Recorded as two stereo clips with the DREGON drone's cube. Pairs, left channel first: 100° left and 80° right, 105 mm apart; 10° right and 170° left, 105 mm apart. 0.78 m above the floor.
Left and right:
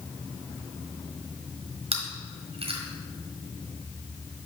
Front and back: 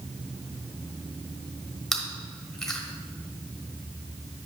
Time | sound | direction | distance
1.9 | chewing | 95° right | 1.4 m